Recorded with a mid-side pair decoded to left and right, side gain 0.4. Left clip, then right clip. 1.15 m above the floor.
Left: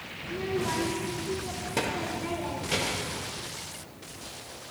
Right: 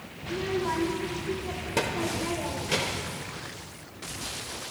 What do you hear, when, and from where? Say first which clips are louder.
0.2 s a child speaking: right 2 dB; 15° right, 0.8 m